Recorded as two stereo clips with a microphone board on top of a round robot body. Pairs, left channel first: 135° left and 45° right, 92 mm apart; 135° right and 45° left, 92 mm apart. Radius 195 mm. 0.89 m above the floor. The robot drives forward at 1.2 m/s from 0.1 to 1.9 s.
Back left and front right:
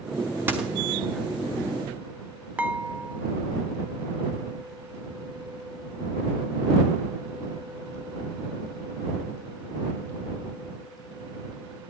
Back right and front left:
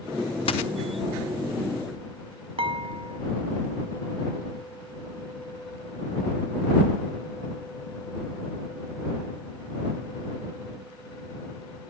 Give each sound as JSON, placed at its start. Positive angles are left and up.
{"t": 0.5, "sound": "a dropped coin", "azimuth_deg": -115, "distance_m": 0.5}
{"t": 2.6, "sound": "dishes clattering", "azimuth_deg": 30, "distance_m": 1.3}